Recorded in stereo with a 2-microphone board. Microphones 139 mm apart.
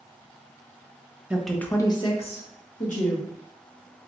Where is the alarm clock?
No alarm clock in this recording.